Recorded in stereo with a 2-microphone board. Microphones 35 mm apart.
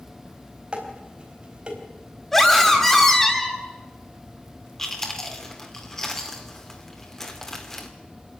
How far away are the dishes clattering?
About 4 m.